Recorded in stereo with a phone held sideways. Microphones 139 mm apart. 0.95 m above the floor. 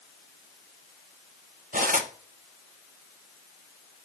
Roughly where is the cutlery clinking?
Right.